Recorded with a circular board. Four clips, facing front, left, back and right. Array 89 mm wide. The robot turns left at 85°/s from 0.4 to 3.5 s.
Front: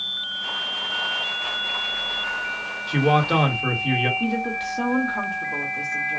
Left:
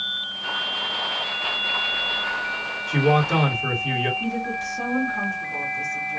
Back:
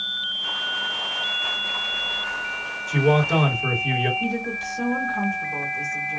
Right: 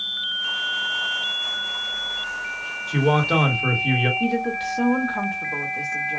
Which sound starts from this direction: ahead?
A man speaking, at 2.9 s.